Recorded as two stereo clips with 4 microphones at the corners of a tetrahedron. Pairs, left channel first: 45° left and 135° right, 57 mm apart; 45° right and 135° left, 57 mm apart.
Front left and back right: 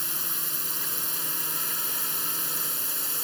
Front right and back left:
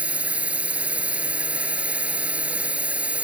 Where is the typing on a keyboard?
I don't hear typing on a keyboard.